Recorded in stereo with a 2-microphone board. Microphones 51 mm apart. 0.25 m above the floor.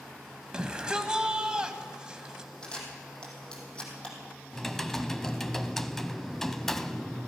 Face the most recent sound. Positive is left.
turn(degrees=5)  # may be behind; listen again after turning